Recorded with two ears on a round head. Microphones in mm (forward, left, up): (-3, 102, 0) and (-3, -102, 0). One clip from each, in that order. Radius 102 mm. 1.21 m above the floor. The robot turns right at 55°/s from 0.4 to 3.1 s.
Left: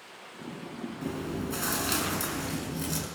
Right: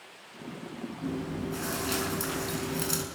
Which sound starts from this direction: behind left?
Chewing, at 1.0 s.